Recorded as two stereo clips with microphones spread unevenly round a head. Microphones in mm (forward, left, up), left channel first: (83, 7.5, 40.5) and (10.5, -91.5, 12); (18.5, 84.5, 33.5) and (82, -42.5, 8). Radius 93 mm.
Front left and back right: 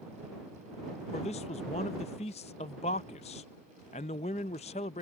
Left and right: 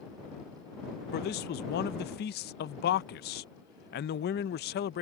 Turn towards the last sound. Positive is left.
turn(degrees=110)